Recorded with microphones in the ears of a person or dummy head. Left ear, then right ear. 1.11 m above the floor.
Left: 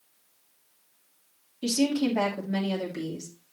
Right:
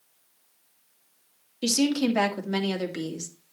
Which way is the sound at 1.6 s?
75° right (ahead or behind).